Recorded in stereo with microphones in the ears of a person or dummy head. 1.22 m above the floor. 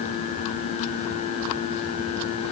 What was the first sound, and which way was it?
Only background noise.